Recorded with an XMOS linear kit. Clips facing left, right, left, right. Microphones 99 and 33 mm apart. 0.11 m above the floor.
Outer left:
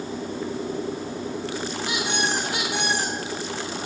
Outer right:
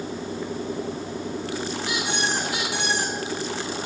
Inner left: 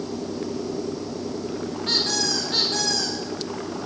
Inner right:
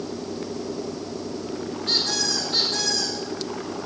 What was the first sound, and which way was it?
A squeak, 55° left (ahead or behind).